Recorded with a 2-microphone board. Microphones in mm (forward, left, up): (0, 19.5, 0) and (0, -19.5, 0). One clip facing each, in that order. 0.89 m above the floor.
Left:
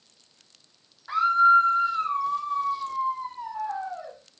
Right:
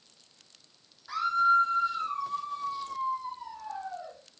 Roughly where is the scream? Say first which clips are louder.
Left 6 dB; left.